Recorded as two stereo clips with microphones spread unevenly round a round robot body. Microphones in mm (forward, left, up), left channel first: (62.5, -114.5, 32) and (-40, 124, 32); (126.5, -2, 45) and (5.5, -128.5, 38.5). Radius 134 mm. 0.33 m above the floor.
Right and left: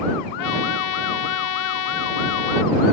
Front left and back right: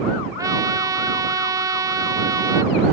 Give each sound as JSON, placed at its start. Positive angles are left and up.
{"t": 0.4, "sound": "a trumpet", "azimuth_deg": -60}